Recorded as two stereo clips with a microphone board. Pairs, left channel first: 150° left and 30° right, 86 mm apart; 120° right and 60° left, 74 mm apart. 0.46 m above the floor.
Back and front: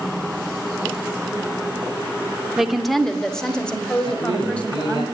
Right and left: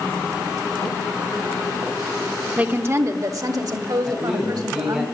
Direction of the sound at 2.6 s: 45° left.